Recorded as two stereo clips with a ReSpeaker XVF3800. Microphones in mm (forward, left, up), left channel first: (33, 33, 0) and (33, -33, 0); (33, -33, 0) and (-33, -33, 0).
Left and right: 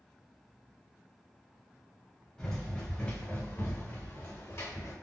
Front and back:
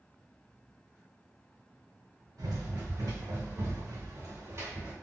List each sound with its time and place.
2.4 s running footsteps: 175° left, 1.5 m; by 4.9 s 130° left, 2 m